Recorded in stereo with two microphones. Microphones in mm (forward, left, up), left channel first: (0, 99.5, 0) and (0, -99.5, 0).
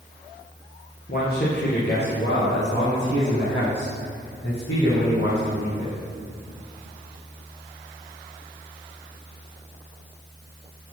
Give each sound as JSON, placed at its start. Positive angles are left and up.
{"t": 1.1, "sound": "a man speaking", "side_deg": 50, "distance_m": 1.9}